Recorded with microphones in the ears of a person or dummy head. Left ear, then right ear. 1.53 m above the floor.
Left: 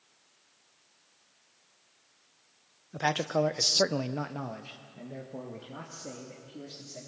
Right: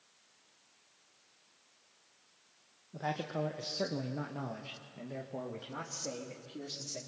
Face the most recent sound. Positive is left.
turn(degrees=-30)  # may be behind; listen again after turning